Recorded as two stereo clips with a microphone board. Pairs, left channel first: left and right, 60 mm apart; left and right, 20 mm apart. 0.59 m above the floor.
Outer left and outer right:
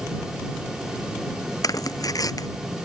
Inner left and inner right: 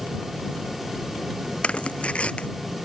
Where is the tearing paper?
85° left.